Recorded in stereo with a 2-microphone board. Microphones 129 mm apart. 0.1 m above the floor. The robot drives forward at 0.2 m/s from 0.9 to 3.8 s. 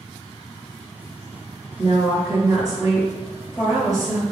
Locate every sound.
1.8 s a woman speaking: 25° right (ahead or behind), 1.6 m